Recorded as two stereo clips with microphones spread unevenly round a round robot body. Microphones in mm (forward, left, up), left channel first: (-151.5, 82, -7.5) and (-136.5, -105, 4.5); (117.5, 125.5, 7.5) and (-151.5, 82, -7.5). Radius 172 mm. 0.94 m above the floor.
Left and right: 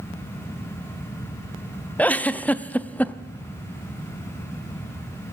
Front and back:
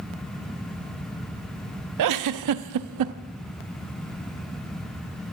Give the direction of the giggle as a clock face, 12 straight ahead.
6 o'clock.